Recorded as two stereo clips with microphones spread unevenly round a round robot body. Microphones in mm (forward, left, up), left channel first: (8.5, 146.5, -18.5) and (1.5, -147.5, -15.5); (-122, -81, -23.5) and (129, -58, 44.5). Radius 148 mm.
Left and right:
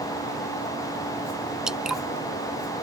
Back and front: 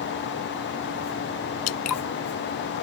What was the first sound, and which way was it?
Dripping, straight behind.